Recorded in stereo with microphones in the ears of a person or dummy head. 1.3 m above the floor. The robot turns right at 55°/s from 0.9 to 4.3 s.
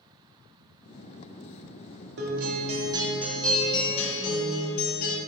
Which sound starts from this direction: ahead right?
A guitar, at 2.2 s.